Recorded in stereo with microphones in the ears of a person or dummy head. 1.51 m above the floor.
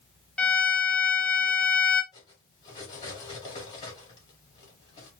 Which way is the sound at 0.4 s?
5° left (ahead or behind).